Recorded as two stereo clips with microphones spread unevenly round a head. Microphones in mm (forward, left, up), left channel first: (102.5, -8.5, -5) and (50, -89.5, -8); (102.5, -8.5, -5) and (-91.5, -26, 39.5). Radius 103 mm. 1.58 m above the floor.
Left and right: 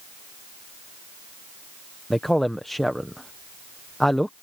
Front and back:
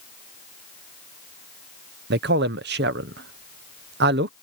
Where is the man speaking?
145° left.